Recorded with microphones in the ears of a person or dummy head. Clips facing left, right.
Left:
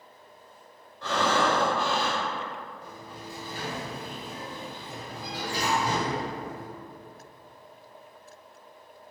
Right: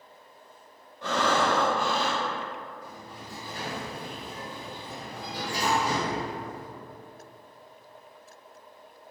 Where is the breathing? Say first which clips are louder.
Even; 20° right (ahead or behind), 1.2 m.